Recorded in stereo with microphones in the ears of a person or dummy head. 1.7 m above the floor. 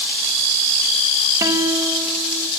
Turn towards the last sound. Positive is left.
turn(degrees=-15)  # may be behind; listen again after turning